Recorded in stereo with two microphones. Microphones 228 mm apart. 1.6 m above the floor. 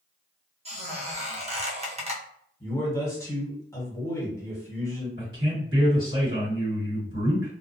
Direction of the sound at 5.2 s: 60° right (ahead or behind).